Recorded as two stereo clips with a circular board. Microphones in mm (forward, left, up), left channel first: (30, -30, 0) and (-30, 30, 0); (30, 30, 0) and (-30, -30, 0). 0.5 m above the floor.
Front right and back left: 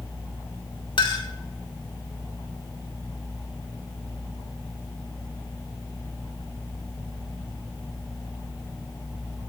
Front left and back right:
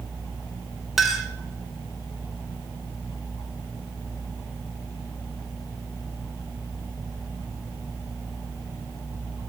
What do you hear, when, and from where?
1.0 s a clink: 45° right, 1.3 m